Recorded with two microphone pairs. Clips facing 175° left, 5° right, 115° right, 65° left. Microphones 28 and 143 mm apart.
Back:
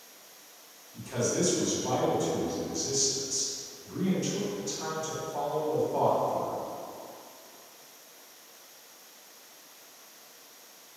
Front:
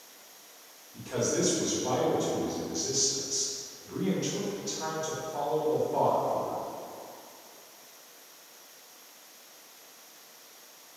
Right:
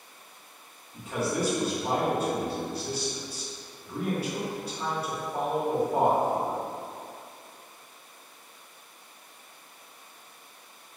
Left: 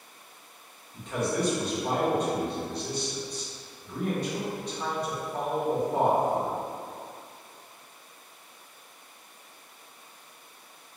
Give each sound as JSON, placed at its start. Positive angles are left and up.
{"t": 0.9, "sound": "a man speaking", "azimuth_deg": -35, "distance_m": 0.8}